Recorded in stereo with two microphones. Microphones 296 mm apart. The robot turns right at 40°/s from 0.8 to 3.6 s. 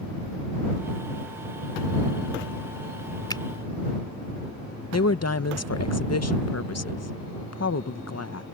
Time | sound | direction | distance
3.3 | a finger snap | 15° left (ahead or behind) | ?
4.9 | a woman speaking | 55° left (ahead or behind) | ?